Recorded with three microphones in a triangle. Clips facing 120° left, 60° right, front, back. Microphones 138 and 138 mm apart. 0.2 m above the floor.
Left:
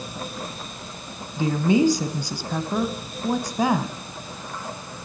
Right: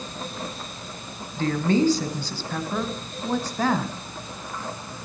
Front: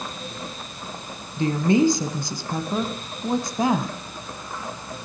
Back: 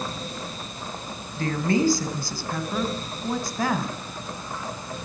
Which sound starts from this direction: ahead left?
A woman speaking, at 1.4 s.